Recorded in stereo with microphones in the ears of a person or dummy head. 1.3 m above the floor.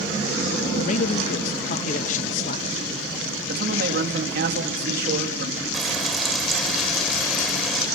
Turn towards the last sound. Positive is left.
turn(degrees=5)  # may be behind; listen again after turning